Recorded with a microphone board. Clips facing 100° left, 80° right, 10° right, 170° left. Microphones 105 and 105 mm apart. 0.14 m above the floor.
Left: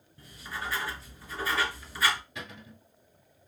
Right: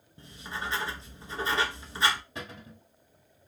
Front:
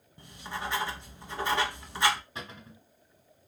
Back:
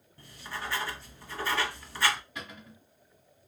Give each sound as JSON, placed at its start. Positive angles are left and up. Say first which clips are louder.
{"t": 0.2, "sound": "writing", "louder": "right 1 dB, front 2 dB", "azimuth_deg": -55, "distance_m": 0.6}
{"t": 2.4, "sound": "a cupboard door", "louder": "right 2 dB, front 1 dB", "azimuth_deg": -50, "distance_m": 1.3}